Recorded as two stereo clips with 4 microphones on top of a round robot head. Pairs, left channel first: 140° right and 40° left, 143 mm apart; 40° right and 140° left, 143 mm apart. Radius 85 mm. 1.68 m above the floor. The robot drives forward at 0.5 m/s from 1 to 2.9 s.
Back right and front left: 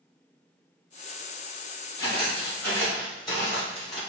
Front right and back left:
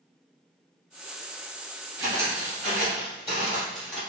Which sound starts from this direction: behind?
Footsteps, at 2.0 s.